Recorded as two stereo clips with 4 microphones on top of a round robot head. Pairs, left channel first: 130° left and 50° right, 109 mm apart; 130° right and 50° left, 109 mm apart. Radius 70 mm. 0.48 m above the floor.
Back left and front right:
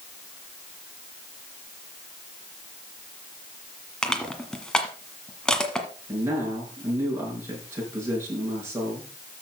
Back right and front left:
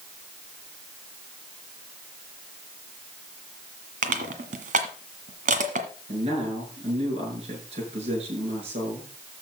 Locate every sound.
4.0 s crushing: 45° left, 1.6 m
6.1 s a man speaking: 15° left, 7.5 m